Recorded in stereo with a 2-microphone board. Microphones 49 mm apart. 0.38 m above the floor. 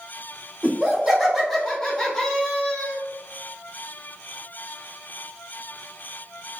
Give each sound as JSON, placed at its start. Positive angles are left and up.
{"t": 0.6, "sound": "laughter", "side_deg": -10, "distance_m": 1.1}